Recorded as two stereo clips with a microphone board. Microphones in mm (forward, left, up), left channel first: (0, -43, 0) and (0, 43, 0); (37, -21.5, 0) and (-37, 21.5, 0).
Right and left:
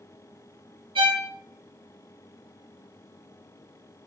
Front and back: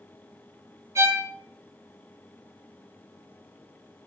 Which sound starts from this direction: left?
A violin, at 0.9 s.